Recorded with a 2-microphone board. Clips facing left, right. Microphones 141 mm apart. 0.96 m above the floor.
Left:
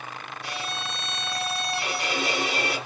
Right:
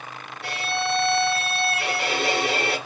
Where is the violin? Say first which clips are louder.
Right 8 dB; 80° right, 7 m.